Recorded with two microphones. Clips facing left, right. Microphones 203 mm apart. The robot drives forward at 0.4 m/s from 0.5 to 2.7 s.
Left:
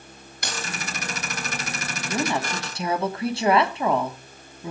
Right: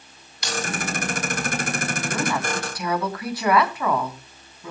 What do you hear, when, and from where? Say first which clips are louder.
0.4 s keys jangling: right 5 dB; 55° left (ahead or behind), 4 m
2.1 s a woman speaking: left 2 dB; 25° left (ahead or behind), 3 m